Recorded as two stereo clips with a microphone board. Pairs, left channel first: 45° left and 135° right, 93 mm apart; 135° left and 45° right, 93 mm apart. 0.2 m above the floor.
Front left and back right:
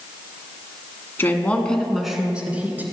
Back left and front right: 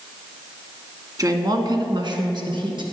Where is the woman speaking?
10° right, 1.6 m; by 2.8 s 65° right, 2.5 m.